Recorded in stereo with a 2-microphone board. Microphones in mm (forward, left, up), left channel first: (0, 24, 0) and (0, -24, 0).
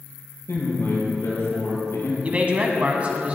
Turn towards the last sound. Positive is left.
turn(degrees=-30)  # may be behind; listen again after turning